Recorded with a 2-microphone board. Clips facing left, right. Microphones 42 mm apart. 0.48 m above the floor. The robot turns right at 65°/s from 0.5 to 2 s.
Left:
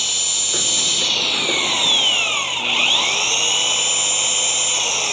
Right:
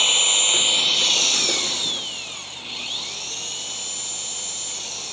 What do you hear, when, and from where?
0.0 s an engine running: 35° right; by 5.1 s 65° left